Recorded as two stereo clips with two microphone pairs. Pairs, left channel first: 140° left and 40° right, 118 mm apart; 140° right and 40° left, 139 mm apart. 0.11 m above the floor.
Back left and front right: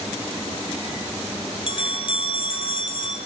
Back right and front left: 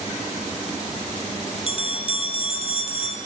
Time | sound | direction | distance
1.7 | a bell | straight behind | 3.5 m